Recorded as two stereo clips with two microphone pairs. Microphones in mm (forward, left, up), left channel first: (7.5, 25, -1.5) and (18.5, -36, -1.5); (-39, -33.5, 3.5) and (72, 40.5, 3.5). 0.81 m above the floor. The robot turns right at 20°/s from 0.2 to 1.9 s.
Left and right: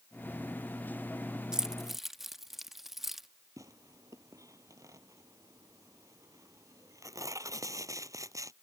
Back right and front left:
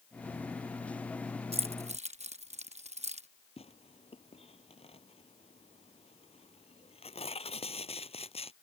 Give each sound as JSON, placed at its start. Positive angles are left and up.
{"t": 1.5, "sound": "keys jangling", "azimuth_deg": -5}
{"t": 3.6, "sound": "tearing paper", "azimuth_deg": -105}